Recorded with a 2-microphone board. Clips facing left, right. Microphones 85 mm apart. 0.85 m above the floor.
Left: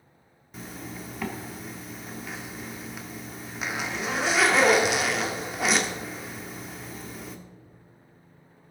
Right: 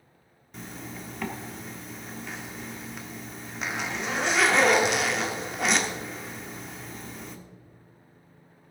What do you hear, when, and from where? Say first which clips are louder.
0.5 s a zipper: left 1 dB; 5° left (ahead or behind), 1.2 m